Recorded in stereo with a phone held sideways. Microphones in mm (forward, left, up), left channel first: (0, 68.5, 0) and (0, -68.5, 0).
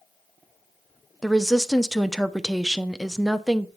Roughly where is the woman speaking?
Centre.